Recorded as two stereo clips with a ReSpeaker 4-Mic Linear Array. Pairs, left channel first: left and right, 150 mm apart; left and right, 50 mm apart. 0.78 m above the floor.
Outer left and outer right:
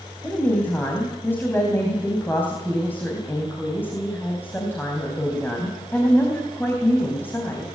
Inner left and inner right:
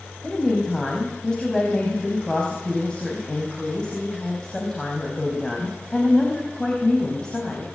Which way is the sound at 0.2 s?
15° left (ahead or behind).